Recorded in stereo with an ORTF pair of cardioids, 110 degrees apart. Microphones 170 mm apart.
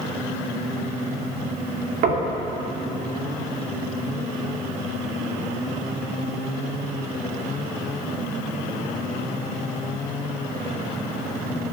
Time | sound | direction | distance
2.0 | knocking | 60° right | 2.5 m